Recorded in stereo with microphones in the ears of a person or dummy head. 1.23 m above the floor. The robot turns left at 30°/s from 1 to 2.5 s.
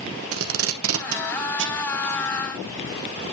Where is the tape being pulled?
65° right (ahead or behind), 1.1 m; by 1.8 s 50° right (ahead or behind), 1.1 m.